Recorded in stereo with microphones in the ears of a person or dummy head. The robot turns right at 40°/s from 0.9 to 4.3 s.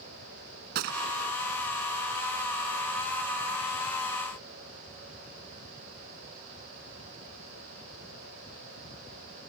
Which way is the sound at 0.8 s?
55° right (ahead or behind).